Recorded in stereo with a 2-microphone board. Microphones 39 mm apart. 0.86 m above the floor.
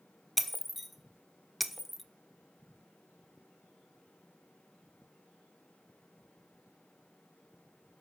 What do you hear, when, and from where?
0.4 s breaking glass: centre (ahead or behind), 1.1 m